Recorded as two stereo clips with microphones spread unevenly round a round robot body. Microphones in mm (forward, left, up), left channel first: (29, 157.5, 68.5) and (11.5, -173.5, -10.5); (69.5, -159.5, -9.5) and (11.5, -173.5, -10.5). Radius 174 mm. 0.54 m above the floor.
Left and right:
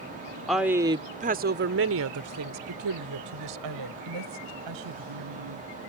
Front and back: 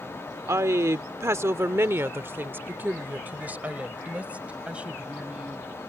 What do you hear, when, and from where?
0.5 s a woman speaking: 175° right; by 5.7 s 95° right